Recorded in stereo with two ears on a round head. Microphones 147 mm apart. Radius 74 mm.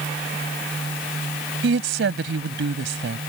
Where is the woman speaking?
75° right (ahead or behind).